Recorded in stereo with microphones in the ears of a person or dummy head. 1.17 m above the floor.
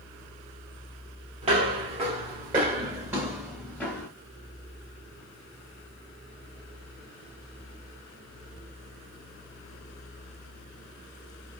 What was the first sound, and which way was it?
Footsteps, 40° right (ahead or behind).